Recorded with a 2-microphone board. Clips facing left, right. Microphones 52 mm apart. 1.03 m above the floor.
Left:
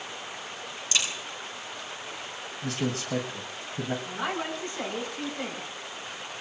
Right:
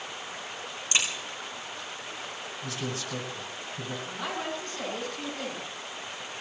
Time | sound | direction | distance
0.9 | a crack | 30° right (ahead or behind) | 6.5 m
2.6 | a man speaking | 65° left (ahead or behind) | 1.8 m
4.0 | a woman speaking | 15° left (ahead or behind) | 9.5 m